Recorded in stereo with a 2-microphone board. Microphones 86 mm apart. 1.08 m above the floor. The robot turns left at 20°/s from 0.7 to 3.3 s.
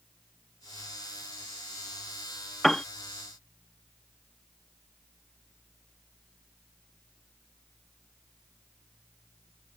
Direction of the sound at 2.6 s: 5° left (ahead or behind).